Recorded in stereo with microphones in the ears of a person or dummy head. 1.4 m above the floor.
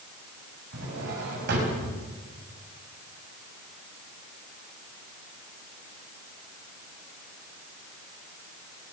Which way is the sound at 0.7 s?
55° right (ahead or behind).